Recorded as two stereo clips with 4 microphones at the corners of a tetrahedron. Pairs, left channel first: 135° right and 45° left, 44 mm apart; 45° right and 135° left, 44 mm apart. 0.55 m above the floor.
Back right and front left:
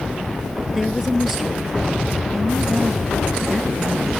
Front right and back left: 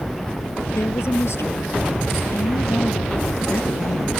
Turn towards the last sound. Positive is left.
turn(degrees=-40)